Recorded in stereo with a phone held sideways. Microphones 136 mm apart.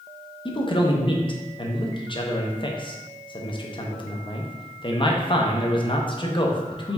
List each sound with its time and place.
0.5 s a man speaking: 35° left (ahead or behind), 0.6 m